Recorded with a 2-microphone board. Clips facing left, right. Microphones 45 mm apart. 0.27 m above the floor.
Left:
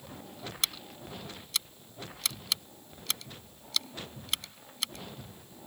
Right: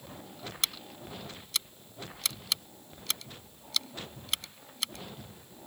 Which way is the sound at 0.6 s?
Centre (ahead or behind).